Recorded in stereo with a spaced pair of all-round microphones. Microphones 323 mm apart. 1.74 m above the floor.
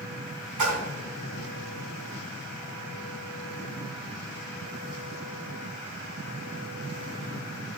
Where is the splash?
70° right (ahead or behind), 0.6 m.